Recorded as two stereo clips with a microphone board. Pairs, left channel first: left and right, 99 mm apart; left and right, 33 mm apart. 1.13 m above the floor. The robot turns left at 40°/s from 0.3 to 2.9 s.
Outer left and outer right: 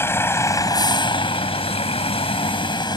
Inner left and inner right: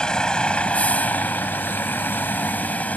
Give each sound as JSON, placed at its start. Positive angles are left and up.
{"t": 0.0, "sound": "a vehicle", "azimuth_deg": 155}